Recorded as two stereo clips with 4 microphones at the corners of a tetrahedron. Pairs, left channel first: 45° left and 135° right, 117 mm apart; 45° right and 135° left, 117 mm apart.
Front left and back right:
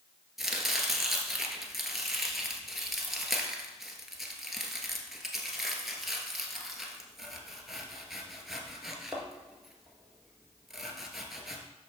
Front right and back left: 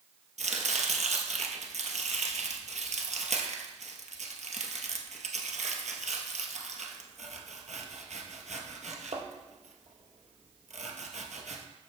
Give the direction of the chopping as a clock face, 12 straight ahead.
7 o'clock.